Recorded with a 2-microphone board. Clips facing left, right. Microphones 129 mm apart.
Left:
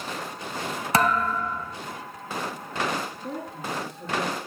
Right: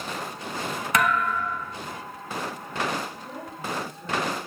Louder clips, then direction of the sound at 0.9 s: Left 2 dB; 35° left (ahead or behind).